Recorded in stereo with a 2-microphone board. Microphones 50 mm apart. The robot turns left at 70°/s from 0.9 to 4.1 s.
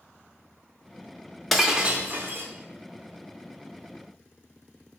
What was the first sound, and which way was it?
Breaking glass, straight ahead.